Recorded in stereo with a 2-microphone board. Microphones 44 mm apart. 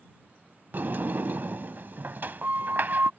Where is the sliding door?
50° right (ahead or behind).